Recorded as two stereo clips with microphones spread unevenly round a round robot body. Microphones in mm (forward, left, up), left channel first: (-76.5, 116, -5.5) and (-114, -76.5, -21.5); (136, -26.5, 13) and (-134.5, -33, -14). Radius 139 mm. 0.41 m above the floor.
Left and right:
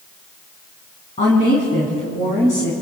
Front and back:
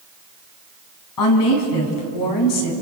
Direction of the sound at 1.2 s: 10° left.